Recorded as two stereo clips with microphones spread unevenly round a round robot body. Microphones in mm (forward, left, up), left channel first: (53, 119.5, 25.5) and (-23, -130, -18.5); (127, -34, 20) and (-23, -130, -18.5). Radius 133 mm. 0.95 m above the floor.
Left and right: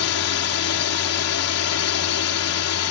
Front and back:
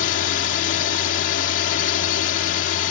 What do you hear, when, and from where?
0.0 s a drone: 45° left